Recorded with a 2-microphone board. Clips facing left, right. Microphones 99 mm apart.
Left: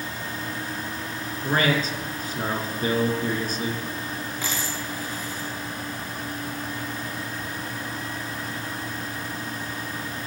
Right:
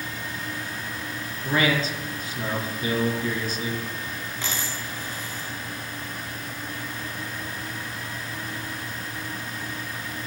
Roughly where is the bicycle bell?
I don't hear a bicycle bell.